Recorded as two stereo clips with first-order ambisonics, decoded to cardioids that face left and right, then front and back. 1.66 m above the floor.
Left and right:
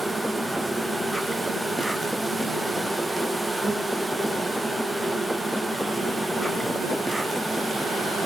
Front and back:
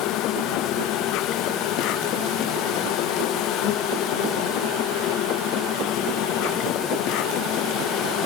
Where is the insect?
5° right, 0.8 m.